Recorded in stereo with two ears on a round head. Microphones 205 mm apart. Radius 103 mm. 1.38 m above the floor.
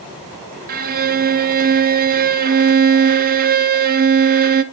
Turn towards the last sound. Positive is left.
turn(degrees=-40)  # may be behind; listen again after turning